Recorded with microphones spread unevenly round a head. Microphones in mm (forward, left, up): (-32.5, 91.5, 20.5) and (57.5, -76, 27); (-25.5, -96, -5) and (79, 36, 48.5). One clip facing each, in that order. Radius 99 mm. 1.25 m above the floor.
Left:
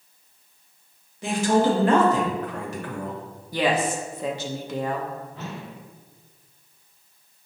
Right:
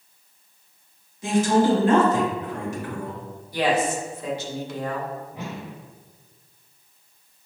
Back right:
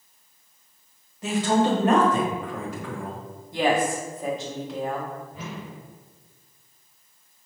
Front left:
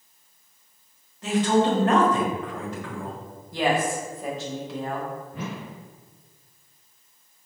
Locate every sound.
1.2 s a man speaking: 155° left, 1.2 m
3.5 s a woman speaking: 140° left, 0.8 m
5.3 s a whoosh: 15° left, 0.6 m